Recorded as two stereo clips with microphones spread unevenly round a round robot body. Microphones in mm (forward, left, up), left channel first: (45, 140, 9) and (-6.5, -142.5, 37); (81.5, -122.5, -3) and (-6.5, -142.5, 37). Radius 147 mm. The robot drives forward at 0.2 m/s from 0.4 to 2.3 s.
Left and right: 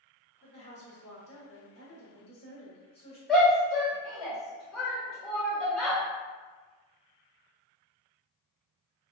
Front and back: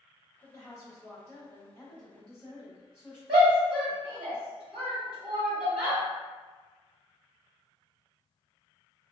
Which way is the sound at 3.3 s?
160° left.